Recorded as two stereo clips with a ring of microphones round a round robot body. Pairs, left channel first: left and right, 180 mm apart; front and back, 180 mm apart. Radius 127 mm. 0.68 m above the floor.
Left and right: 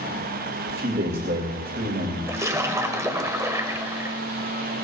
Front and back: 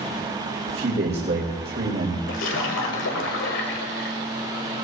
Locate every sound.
0.7 s a man speaking: 135° right, 2 m
2.3 s a splash: 15° right, 1.4 m